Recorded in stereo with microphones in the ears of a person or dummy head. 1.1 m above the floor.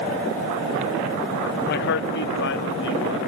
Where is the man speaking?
50° left (ahead or behind), 1.0 m; by 3.2 s 65° left (ahead or behind), 2.5 m.